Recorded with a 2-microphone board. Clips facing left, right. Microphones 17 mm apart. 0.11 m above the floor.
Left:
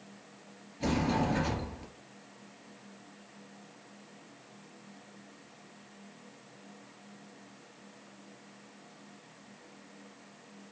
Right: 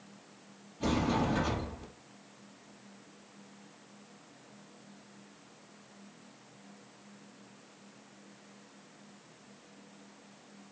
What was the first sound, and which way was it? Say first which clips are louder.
A sliding door: even; 30° left (ahead or behind).